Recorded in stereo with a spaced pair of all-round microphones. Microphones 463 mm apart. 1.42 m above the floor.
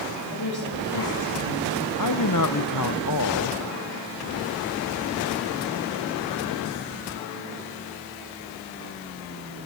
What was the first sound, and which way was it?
A woman speaking, 70° left (ahead or behind).